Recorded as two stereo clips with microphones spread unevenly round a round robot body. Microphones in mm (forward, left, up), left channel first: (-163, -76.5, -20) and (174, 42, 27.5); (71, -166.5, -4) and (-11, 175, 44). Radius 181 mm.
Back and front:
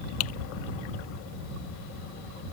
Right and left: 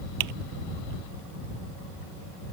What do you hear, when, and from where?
0.2 s typing on a keyboard: 145° left